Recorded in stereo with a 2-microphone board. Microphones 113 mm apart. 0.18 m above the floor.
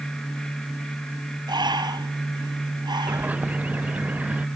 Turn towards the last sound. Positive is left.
turn(degrees=-15)  # may be behind; listen again after turning